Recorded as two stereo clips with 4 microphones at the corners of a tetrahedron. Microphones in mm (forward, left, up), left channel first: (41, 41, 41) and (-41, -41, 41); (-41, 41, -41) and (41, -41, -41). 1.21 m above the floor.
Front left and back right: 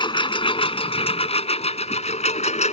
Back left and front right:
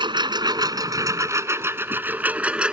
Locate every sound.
0.0 s a lawn mower: straight ahead; by 2.7 s 35° left